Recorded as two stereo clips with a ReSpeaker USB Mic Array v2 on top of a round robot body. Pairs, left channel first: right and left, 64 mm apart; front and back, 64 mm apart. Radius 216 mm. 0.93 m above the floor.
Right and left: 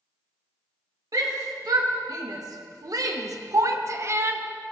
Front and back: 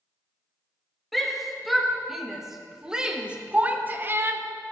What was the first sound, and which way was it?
A shout, 90° left.